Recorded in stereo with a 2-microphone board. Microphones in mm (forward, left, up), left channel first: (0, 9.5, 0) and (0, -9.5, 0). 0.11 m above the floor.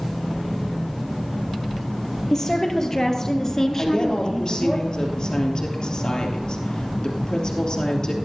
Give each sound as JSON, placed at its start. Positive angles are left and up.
{"t": 2.3, "sound": "a woman speaking", "side_deg": 30, "distance_m": 2.5}
{"t": 3.8, "sound": "a woman speaking", "side_deg": 55, "distance_m": 2.5}